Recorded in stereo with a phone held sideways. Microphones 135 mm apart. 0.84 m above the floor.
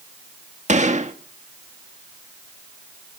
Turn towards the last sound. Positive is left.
turn(degrees=-60)  # may be behind; listen again after turning